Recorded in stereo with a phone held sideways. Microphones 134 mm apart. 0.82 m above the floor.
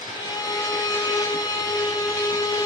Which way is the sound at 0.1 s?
25° left (ahead or behind).